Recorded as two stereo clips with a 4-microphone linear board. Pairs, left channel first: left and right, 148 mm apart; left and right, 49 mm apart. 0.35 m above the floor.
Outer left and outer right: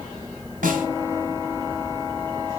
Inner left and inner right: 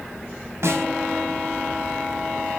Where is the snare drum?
65° right (ahead or behind), 1.3 m.